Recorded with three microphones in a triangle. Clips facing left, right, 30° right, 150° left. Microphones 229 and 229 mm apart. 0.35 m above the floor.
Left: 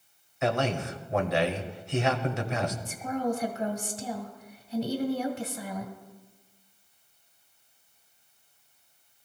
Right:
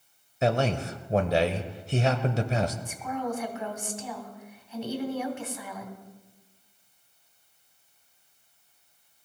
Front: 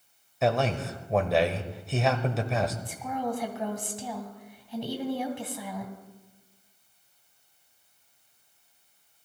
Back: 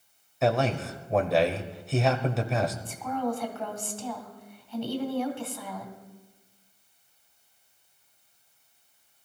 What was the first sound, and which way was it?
A man speaking, 120° right.